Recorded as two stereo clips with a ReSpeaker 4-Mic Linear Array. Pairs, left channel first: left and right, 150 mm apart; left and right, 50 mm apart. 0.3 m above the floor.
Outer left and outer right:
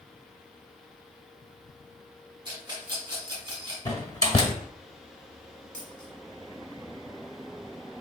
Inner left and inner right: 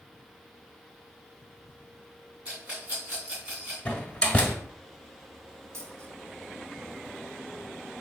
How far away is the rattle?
About 2 m.